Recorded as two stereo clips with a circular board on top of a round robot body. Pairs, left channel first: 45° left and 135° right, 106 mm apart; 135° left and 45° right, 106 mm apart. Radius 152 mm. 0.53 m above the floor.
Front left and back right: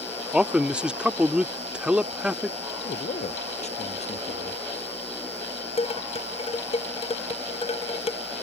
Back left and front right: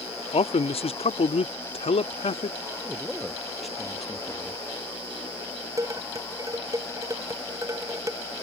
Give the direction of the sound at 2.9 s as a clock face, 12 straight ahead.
11 o'clock.